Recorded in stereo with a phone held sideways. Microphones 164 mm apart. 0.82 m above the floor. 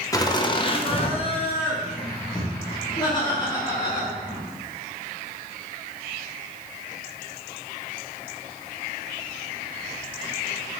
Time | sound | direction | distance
0.1 | laughter | 20° left (ahead or behind) | 0.6 m